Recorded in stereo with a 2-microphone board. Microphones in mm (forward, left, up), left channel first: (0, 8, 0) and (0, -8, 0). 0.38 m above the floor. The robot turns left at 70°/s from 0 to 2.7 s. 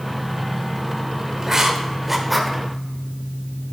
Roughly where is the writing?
Right.